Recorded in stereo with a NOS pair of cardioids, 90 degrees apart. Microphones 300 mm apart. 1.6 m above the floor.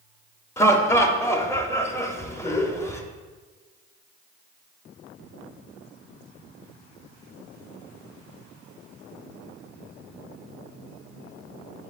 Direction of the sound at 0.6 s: 10° left.